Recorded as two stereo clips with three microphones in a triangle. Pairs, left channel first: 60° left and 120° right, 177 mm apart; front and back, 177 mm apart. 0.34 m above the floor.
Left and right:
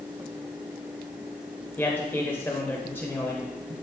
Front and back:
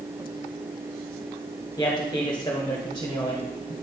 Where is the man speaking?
Straight ahead, 1.3 m.